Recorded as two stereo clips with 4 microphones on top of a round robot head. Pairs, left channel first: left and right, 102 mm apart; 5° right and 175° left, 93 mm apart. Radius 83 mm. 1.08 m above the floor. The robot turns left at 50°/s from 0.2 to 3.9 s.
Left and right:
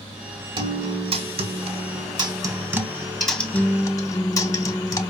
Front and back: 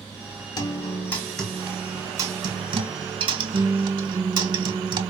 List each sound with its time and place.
0.6 s a guitar: 50° right, 1.2 m; by 5.1 s 145° left, 1.2 m